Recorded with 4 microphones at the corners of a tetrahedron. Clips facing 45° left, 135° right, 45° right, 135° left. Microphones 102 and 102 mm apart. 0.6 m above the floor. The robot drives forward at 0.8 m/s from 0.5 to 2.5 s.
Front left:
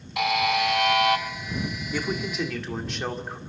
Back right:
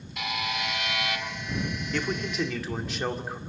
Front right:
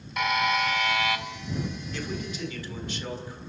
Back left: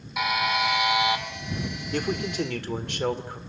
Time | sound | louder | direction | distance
0.2 | a buzzer | front left 9 dB, even | 50° left | 1.9 m
1.9 | a man speaking | front left 1 dB, back left 12 dB | 125° left | 1.7 m